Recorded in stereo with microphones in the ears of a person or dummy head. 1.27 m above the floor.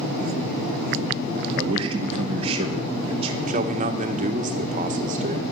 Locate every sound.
1.6 s a man speaking: 30° right (ahead or behind), 2 m
3.5 s a man speaking: 40° right (ahead or behind), 1.6 m